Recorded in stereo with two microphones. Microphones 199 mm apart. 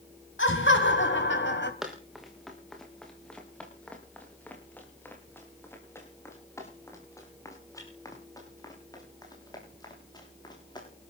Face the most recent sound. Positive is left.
turn(degrees=20)  # may be behind; listen again after turning